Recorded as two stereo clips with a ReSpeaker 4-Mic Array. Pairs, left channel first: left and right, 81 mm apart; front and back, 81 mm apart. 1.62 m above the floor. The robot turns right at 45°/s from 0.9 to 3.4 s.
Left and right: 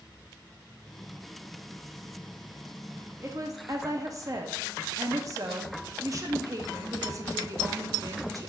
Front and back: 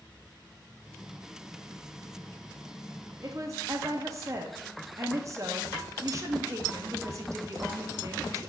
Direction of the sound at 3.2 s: 140° right.